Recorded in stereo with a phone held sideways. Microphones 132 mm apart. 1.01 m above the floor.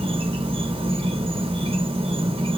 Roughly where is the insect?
Right.